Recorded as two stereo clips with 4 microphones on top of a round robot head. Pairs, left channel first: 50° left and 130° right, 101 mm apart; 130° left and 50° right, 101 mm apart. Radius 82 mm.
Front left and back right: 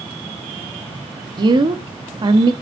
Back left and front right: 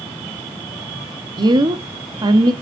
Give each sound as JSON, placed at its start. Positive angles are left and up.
{"t": 1.4, "sound": "a woman speaking", "azimuth_deg": -90, "distance_m": 1.2}